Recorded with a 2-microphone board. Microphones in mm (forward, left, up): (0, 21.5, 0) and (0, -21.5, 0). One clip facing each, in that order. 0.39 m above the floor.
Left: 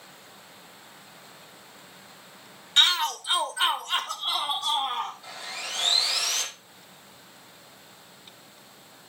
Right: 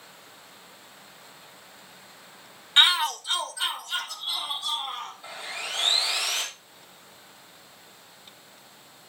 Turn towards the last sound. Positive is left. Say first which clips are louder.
# right 1 dB
turn(degrees=-15)  # may be behind; listen again after turning